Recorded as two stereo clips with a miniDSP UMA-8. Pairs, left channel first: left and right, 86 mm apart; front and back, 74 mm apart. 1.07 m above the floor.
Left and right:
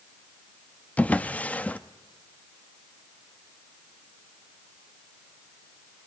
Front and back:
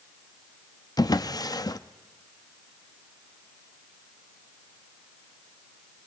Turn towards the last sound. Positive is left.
turn(degrees=20)